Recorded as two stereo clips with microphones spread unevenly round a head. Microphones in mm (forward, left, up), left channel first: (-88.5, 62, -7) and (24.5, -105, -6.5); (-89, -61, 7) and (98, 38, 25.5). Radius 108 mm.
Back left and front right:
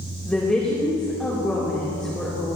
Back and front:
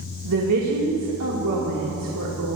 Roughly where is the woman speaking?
Ahead left.